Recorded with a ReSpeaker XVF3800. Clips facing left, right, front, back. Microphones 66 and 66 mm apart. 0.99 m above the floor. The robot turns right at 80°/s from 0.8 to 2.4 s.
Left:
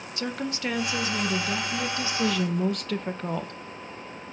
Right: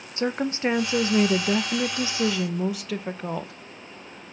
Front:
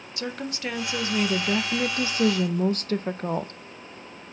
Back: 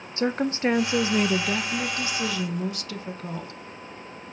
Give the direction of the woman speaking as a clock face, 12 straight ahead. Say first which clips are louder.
Right 6 dB, back 8 dB; 5 o'clock.